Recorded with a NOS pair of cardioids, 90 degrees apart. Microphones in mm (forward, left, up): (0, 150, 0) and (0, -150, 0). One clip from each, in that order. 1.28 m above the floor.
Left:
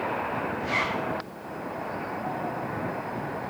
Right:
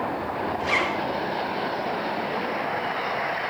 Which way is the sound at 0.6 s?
65° right.